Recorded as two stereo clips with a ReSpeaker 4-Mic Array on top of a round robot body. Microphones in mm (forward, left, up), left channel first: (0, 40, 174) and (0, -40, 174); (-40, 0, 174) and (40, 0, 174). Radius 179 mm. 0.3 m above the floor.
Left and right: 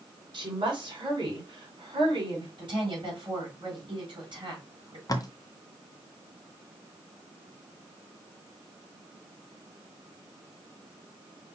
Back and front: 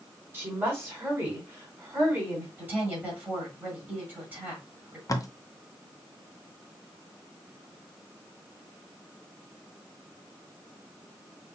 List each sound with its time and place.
0.3 s a woman speaking: 65° right, 3.5 m
2.6 s a woman speaking: 70° right, 3.5 m
5.1 s tape being pulled: 130° left, 1.0 m